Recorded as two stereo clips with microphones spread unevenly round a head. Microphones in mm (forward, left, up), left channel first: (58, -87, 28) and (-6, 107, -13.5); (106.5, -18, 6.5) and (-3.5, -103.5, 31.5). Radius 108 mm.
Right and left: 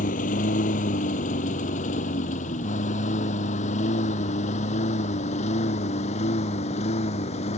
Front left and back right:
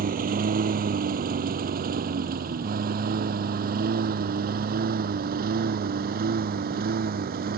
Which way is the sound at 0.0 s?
125° right.